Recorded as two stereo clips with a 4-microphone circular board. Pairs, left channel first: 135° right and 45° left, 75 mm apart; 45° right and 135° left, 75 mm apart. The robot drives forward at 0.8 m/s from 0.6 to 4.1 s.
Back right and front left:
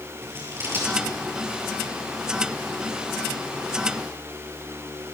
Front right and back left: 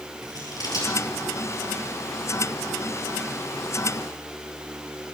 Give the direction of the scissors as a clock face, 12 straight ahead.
12 o'clock.